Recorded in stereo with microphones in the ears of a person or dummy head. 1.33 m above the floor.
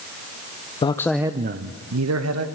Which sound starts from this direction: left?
A man speaking, at 0.8 s.